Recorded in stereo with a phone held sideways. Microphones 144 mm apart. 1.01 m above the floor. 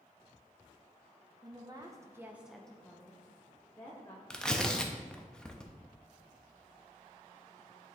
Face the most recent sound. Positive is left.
turn(degrees=5)  # may be behind; listen again after turning